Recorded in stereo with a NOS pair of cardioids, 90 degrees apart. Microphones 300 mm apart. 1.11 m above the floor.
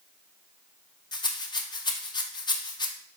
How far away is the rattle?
About 0.5 m.